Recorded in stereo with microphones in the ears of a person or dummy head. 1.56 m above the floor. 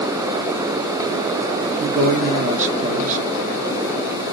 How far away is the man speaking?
About 0.6 m.